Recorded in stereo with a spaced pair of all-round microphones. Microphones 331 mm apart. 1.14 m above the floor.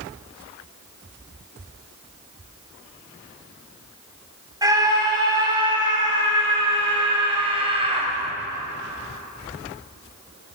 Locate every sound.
4.6 s a scream: 10° right (ahead or behind), 7.5 m; by 8.1 s 20° right (ahead or behind), 6 m